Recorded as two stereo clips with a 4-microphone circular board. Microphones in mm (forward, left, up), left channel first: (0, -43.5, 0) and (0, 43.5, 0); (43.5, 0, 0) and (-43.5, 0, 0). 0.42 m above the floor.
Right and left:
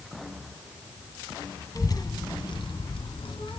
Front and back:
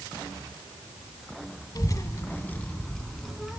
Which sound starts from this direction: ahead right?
A child speaking, at 1.8 s.